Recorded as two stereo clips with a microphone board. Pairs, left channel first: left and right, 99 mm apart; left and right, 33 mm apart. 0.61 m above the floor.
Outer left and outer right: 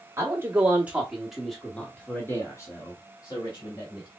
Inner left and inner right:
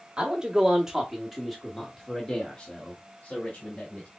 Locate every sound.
0.2 s a man speaking: 25° right (ahead or behind), 1.8 m; by 4.1 s 55° left (ahead or behind), 2 m